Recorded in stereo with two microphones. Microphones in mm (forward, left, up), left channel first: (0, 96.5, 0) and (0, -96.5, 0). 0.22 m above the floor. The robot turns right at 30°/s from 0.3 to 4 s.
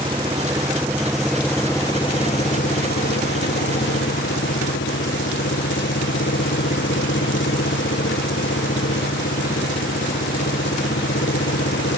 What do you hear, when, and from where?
0.0 s an engine running: 25° right; by 12.0 s 85° left